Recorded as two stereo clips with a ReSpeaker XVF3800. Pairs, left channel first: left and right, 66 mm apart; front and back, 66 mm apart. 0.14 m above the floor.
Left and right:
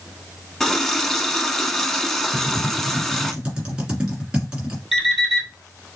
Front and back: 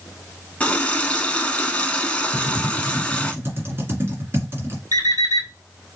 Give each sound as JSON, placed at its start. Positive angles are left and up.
{"t": 0.6, "sound": "a running tap", "azimuth_deg": 20, "distance_m": 0.7}
{"t": 2.3, "sound": "typing on a keyboard", "azimuth_deg": -160, "distance_m": 1.9}
{"t": 4.9, "sound": "an alarm clock", "azimuth_deg": 180, "distance_m": 2.0}